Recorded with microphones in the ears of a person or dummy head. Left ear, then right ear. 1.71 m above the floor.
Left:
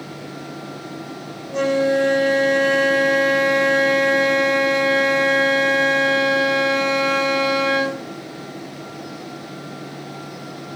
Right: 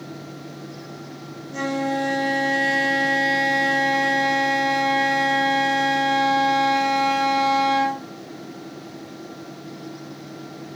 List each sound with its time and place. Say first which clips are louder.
1.5 s a flute: left 7 dB; 15° left (ahead or behind), 1.4 m